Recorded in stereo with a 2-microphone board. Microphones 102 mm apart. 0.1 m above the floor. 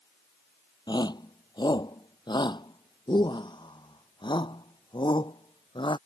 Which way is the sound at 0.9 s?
50° left (ahead or behind).